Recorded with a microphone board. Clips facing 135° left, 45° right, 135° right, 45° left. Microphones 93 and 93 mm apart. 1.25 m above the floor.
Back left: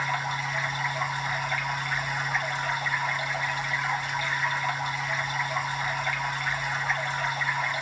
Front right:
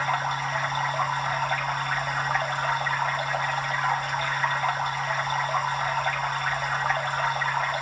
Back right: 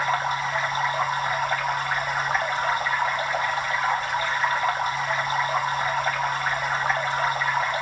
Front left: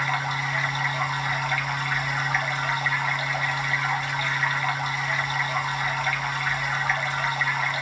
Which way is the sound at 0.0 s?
80° right.